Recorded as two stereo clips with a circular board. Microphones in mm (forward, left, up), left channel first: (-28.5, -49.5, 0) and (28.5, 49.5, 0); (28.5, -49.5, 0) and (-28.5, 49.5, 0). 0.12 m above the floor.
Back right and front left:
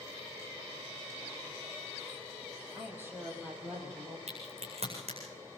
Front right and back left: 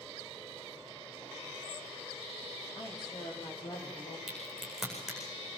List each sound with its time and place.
2.8 s a woman speaking: 10° right, 5.5 m; by 4.2 s 20° right, 5 m
4.3 s a crack: 30° left, 9 m